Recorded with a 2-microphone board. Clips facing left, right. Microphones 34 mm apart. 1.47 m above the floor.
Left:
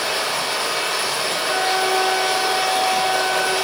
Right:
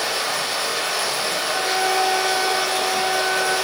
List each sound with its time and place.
0.0 s running water: 35° left (ahead or behind), 2.0 m
1.5 s a flute: 70° left (ahead or behind), 1.9 m